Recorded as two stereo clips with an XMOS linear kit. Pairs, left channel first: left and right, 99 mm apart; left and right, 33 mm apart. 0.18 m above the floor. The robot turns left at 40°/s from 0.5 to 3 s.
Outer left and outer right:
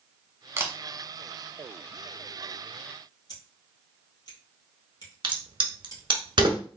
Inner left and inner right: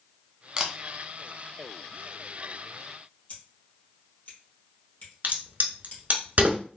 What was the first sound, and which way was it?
A camera shutter, 25° right (ahead or behind).